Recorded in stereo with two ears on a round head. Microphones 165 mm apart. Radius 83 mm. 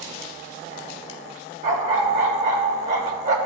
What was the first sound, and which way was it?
A dog barking, 40° right (ahead or behind).